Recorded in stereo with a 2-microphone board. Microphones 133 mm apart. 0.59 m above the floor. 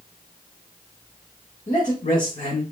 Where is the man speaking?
70° left (ahead or behind), 2 m.